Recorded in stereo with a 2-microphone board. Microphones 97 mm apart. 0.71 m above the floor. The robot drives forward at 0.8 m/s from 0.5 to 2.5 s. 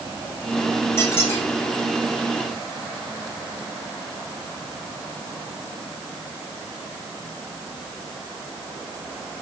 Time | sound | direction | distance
1.0 | a squeak | 25° left (ahead or behind) | 5.5 m